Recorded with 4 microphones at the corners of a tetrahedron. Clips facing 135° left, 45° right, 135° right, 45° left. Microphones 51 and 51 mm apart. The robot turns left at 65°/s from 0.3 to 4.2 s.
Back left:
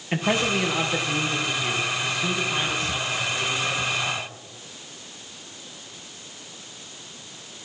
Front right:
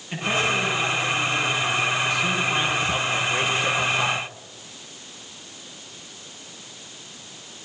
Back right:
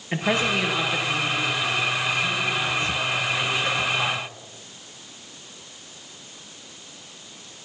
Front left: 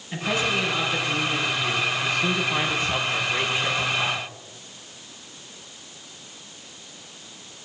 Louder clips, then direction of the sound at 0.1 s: Even, back right 2 dB; 170° right.